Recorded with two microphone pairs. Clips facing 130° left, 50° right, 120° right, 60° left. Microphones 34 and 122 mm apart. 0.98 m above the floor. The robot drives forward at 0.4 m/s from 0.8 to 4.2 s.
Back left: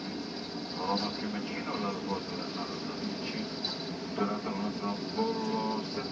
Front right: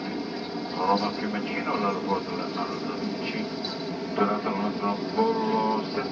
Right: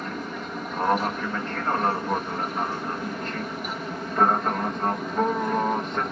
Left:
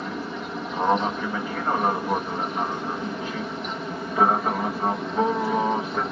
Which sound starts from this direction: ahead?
An aircraft, at 0.0 s.